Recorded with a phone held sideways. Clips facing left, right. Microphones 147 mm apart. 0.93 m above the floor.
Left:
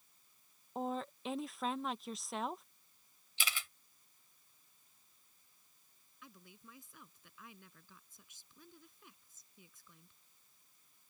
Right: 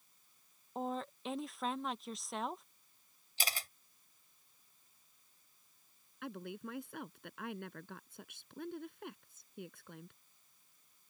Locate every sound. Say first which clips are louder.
0.8 s a woman speaking: even; centre (ahead or behind)
3.4 s a camera shutter: right 2 dB; 40° right (ahead or behind)
6.2 s a woman speaking: right 15 dB; 70° right (ahead or behind)